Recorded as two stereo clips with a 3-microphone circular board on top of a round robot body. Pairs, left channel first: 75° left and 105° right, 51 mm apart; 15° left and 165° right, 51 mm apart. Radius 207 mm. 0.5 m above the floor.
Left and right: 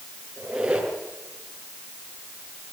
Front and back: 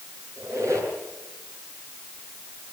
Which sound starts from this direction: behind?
A squeak, at 0.4 s.